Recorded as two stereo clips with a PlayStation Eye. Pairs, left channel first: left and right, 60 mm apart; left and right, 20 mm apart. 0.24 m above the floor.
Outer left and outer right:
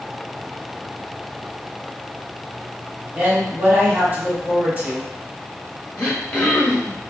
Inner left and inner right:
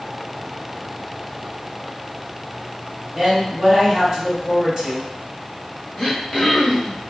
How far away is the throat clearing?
About 0.9 m.